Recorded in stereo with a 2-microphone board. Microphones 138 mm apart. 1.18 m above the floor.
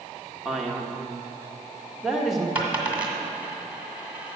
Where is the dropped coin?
10° right (ahead or behind), 1.7 m.